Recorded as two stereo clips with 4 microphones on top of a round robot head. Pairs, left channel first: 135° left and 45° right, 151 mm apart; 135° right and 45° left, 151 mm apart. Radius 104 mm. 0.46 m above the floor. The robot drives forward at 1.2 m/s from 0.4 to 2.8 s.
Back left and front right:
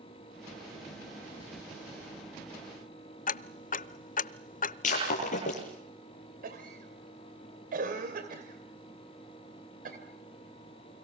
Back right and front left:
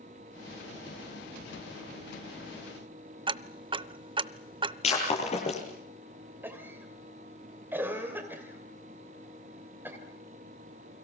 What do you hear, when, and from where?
3.3 s ticking: 100° left, 0.7 m
4.8 s breaking glass: 175° left, 8.5 m
6.4 s a cough: 30° right, 3 m